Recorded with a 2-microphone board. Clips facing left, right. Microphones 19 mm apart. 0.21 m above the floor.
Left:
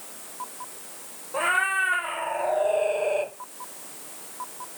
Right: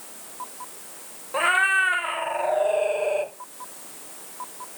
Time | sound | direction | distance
1.3 | a cat meowing | 30° right (ahead or behind) | 1.5 m